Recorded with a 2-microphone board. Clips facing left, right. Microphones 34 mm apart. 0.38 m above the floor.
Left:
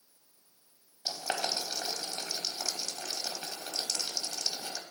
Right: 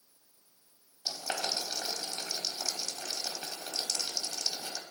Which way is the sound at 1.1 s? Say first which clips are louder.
Left 1 dB; 20° left (ahead or behind).